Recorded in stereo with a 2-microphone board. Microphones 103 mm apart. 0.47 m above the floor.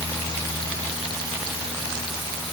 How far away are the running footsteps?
No running footsteps in this recording.